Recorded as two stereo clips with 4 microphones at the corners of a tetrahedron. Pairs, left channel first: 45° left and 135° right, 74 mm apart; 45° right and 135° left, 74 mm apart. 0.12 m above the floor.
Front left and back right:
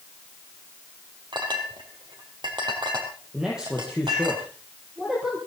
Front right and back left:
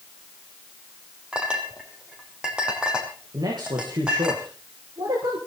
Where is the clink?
145° right, 4 m.